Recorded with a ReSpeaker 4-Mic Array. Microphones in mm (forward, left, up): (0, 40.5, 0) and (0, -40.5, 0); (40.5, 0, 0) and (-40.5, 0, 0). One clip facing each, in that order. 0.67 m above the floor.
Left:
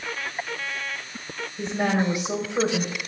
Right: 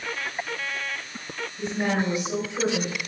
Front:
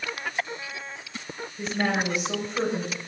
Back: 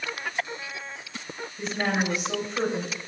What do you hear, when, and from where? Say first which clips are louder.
1.6 s a woman speaking: left 2 dB, front 1 dB; 90° left, 2.5 m